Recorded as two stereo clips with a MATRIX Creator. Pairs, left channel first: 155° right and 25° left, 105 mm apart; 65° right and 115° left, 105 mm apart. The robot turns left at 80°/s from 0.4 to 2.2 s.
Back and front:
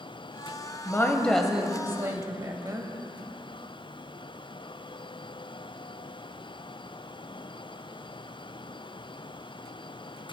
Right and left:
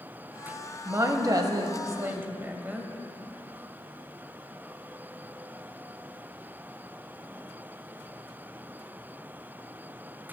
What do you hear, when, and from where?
0.8 s a woman speaking: 160° left, 1.1 m; by 2.9 s 50° left, 1.1 m